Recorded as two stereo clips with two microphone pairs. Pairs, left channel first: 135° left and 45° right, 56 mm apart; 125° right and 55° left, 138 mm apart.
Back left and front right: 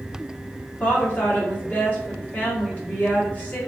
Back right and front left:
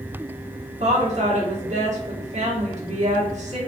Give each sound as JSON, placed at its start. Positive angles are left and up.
{"t": 0.8, "sound": "a woman speaking", "azimuth_deg": 80, "distance_m": 1.3}